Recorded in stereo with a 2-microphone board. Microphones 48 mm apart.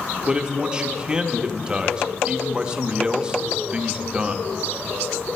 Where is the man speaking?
20° right (ahead or behind), 0.7 m.